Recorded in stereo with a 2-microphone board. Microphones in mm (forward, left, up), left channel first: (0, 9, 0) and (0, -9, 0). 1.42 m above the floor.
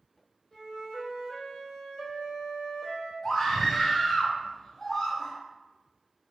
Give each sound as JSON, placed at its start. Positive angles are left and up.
{"t": 0.5, "sound": "a flute", "side_deg": 40, "distance_m": 1.4}
{"t": 3.2, "sound": "a scream", "side_deg": 15, "distance_m": 1.6}